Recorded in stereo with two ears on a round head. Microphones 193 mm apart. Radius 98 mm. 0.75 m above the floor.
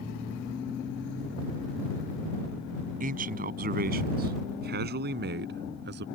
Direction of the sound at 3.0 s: 40° right (ahead or behind).